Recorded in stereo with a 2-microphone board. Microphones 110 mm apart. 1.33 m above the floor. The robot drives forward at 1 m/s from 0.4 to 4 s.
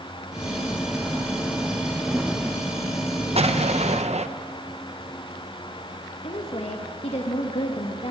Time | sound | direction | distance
3.4 | an explosion | 65° right (ahead or behind) | 1.1 m
6.2 | a woman speaking | 70° left (ahead or behind) | 1.8 m